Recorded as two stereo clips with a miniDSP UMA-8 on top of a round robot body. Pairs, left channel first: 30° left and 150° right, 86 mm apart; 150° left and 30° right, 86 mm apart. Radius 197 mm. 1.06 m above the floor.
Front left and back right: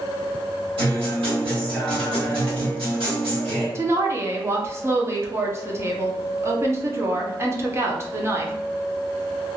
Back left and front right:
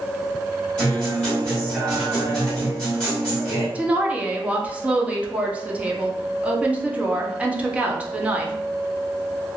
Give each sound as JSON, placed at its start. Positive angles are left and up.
{"t": 0.8, "sound": "a guitar", "azimuth_deg": -130, "distance_m": 1.9}
{"t": 3.8, "sound": "a woman speaking", "azimuth_deg": -100, "distance_m": 0.9}